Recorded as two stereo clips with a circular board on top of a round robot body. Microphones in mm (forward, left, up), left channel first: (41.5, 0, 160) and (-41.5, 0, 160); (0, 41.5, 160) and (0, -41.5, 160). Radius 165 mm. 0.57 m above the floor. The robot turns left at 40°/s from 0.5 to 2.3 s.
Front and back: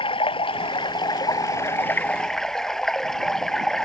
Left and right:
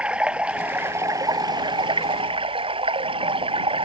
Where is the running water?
10° right; by 3.9 s 85° right.